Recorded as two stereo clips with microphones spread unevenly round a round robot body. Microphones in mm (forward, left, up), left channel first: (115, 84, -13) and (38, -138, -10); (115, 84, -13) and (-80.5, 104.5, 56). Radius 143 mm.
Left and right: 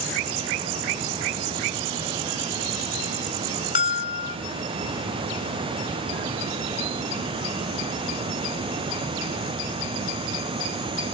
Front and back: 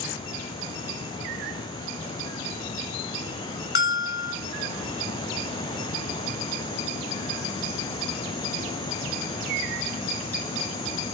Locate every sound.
3.8 s a bell: 15° left, 3.5 m